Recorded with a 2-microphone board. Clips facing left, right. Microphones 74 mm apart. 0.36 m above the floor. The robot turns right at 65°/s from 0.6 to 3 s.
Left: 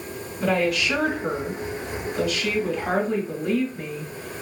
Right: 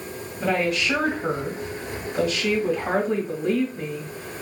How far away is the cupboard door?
I don't hear a cupboard door.